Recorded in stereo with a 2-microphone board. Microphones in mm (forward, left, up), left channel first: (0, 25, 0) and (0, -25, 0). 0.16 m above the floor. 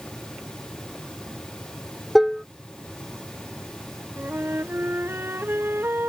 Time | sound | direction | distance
2.1 | dishes clattering | centre (ahead or behind) | ?
4.2 | a flute | 50° right (ahead or behind) | ?